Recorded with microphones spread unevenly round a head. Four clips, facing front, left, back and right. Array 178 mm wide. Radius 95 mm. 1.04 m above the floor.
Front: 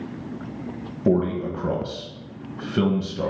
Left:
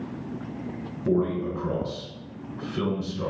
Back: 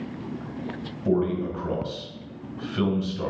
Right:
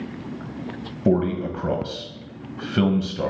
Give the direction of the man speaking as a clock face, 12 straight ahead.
2 o'clock.